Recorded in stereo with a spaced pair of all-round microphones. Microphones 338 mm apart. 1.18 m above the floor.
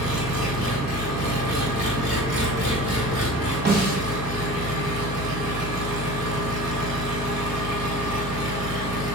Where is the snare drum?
30° right (ahead or behind), 1.7 m.